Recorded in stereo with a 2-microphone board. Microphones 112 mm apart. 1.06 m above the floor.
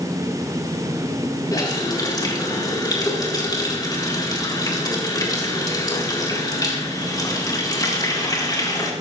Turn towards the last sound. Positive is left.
turn(degrees=35)  # may be behind; listen again after turning